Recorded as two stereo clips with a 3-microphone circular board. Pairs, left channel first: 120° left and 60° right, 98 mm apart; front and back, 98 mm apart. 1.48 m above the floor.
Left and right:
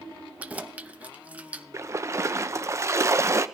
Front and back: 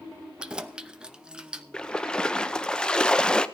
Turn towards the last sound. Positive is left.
turn(degrees=-75)